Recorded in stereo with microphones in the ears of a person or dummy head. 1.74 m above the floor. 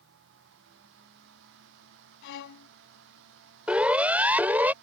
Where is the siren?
5° right (ahead or behind); by 4.7 s 10° right (ahead or behind).